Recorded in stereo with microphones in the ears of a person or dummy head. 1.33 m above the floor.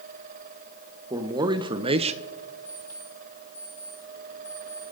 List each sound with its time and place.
1.1 s a man speaking: 20° right (ahead or behind), 1.4 m; by 2.2 s 35° right (ahead or behind), 0.6 m
2.6 s an alarm clock: 30° left (ahead or behind), 8 m